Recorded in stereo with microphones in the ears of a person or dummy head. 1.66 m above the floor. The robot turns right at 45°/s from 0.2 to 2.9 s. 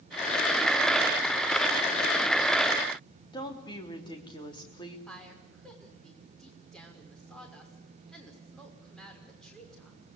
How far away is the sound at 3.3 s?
About 3.5 m.